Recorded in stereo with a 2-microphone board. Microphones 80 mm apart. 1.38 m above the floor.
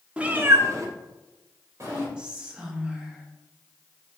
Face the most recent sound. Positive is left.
turn(degrees=-15)  # may be behind; listen again after turning